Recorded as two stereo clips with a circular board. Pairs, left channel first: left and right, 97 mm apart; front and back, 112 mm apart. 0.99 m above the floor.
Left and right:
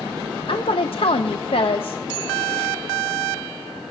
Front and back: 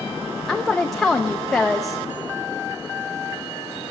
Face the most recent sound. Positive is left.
turn(degrees=85)